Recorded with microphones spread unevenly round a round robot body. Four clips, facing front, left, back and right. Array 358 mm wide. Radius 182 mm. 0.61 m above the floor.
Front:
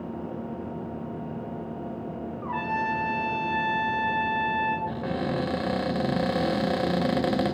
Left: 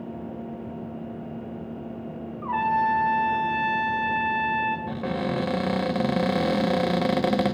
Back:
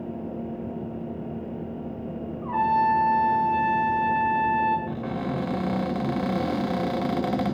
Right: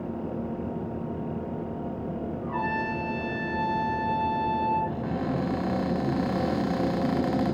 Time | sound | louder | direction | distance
2.4 | a trumpet | left 8 dB, back 8 dB | 55° left | 6 m
4.9 | a cupboard door | left 2 dB, even | 70° left | 1.8 m